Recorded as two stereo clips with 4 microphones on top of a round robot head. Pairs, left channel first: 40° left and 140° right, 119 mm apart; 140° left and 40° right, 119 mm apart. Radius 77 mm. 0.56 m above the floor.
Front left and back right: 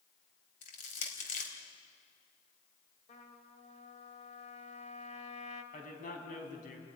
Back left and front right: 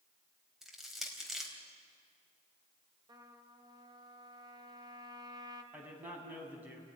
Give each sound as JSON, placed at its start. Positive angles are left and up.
{"t": 0.6, "sound": "crushing", "azimuth_deg": 50, "distance_m": 4.0}
{"t": 3.1, "sound": "a trumpet", "azimuth_deg": 15, "distance_m": 2.0}
{"t": 5.7, "sound": "a man speaking", "azimuth_deg": 35, "distance_m": 5.0}